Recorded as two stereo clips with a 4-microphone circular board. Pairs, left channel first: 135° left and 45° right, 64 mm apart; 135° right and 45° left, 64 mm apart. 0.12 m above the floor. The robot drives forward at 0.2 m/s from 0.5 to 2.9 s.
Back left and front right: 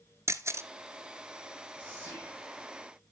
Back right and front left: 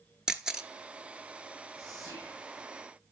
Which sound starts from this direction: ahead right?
A camera shutter, at 0.3 s.